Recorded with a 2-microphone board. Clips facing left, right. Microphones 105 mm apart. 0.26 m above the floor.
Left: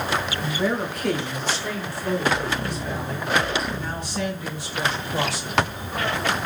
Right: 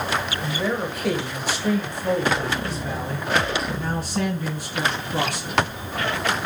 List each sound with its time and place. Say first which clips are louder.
0.4 s a man speaking: left 1 dB; 5° left (ahead or behind), 1.6 m; by 5.6 s 50° right (ahead or behind), 3 m